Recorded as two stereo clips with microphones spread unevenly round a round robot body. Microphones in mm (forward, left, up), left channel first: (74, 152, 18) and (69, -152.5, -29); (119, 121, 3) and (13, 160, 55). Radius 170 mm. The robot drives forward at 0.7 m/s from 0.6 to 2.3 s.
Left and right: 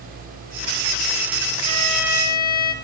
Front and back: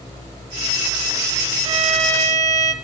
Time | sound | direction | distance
1.6 | a violin | 140° left | 0.8 m